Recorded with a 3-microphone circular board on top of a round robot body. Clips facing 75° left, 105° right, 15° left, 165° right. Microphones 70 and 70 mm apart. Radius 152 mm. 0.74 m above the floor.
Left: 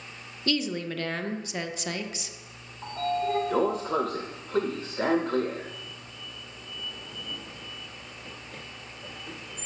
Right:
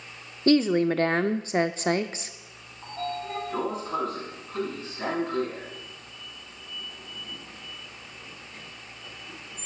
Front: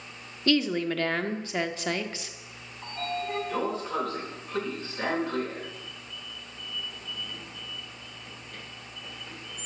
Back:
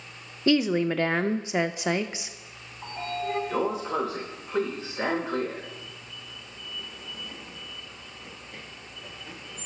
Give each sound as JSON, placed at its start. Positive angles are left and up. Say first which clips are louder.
{"t": 0.5, "sound": "a woman speaking", "louder": "right 9 dB, back 3 dB", "azimuth_deg": -105, "distance_m": 0.5}
{"t": 2.8, "sound": "a sliding door", "louder": "left 5 dB, back 1 dB", "azimuth_deg": 120, "distance_m": 0.7}